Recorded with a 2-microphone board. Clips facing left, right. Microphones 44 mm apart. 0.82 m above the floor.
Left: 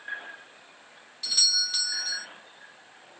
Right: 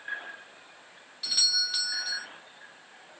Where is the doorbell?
5° right (ahead or behind), 0.7 m.